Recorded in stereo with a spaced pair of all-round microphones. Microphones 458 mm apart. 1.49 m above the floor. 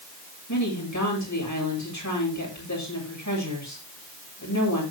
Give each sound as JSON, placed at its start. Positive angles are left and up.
{"t": 0.5, "sound": "a woman speaking", "side_deg": 40, "distance_m": 8.0}